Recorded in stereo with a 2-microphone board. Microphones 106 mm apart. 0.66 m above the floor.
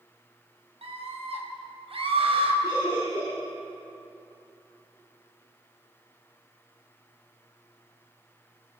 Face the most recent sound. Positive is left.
turn(degrees=-35)  # may be behind; listen again after turning